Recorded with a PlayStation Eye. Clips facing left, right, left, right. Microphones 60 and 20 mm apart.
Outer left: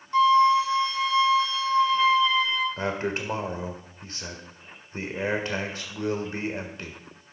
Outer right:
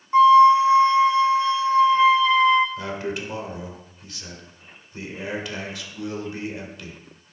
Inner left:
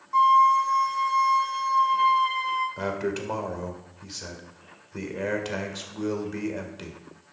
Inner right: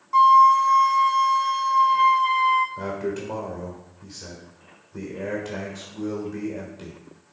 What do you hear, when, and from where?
0.1 s a flute: 25° right (ahead or behind), 0.8 m
2.8 s a man speaking: 35° left (ahead or behind), 1.7 m